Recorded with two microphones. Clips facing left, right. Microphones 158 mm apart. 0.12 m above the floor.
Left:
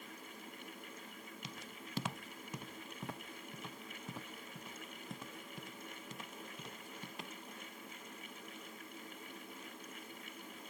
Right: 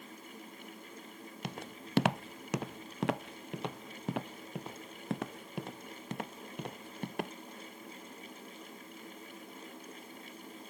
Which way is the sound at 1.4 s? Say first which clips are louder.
Right 11 dB; 65° right (ahead or behind).